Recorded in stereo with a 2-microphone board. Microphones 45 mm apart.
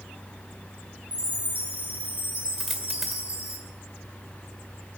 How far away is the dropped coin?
About 1.9 m.